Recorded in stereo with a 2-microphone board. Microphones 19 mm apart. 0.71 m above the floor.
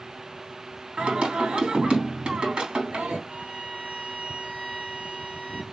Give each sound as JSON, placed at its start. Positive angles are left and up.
{"t": 1.0, "sound": "singing", "side_deg": -45, "distance_m": 3.5}
{"t": 3.3, "sound": "a violin", "side_deg": -60, "distance_m": 2.0}